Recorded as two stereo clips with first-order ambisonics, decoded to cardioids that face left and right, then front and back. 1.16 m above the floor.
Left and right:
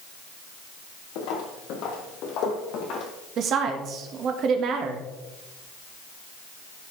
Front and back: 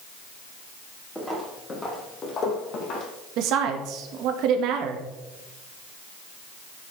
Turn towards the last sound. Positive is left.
turn(degrees=-145)